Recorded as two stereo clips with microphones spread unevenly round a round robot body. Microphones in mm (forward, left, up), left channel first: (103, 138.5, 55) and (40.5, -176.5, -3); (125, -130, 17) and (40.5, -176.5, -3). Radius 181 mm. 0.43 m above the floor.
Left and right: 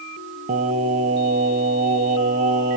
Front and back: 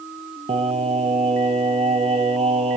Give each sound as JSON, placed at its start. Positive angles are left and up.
{"t": 0.5, "sound": "singing", "azimuth_deg": -175, "distance_m": 0.6}